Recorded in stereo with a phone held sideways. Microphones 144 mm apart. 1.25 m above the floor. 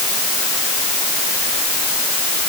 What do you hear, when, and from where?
Only background noise.